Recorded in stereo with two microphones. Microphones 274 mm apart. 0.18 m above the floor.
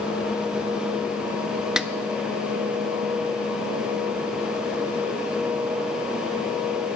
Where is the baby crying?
I don't hear a baby crying.